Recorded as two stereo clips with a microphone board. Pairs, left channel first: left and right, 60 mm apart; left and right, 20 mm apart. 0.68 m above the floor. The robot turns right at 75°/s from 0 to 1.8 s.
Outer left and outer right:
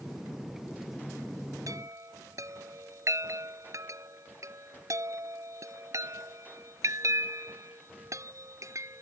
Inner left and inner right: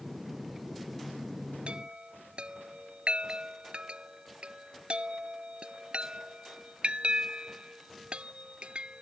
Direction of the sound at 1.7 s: 70° right (ahead or behind).